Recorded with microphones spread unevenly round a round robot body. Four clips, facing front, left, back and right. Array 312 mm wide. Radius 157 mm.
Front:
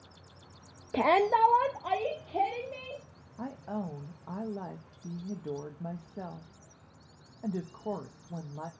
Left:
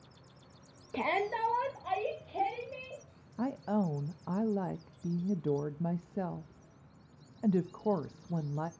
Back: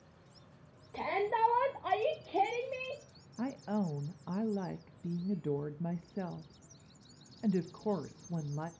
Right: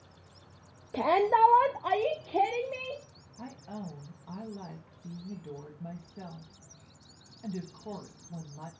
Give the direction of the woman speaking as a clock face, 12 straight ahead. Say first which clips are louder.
Left 10 dB, back 2 dB; 9 o'clock.